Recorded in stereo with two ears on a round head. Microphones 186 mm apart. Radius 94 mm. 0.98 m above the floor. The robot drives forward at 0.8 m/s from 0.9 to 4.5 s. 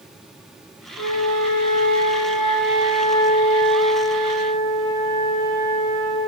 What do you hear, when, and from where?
1.0 s a flute: 65° left (ahead or behind), 1.9 m; by 6.2 s 40° left (ahead or behind), 2.5 m